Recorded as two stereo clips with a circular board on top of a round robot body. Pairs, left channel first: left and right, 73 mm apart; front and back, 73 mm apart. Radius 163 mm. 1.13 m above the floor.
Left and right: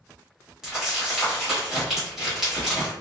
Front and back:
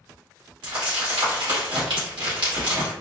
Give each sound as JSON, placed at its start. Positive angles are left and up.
{"t": 0.6, "sound": "crumpling", "azimuth_deg": -175, "distance_m": 1.1}